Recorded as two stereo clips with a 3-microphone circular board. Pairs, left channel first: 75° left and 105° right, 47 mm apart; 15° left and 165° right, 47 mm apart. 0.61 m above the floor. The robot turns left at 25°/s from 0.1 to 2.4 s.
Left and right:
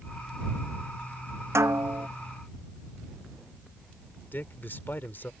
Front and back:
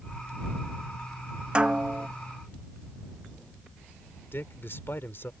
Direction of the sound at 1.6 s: 95° right.